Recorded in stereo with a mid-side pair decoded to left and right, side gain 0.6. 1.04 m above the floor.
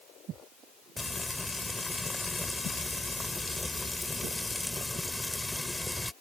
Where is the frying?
15° left.